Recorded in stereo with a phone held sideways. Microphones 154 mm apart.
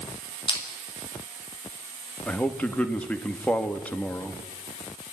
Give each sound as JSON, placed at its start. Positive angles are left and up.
{"t": 0.5, "sound": "crushing", "side_deg": 35, "distance_m": 6.0}
{"t": 2.3, "sound": "a man speaking", "side_deg": 10, "distance_m": 2.0}